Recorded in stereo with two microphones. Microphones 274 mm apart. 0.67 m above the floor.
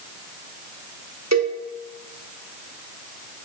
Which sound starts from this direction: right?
A cowbell, at 1.3 s.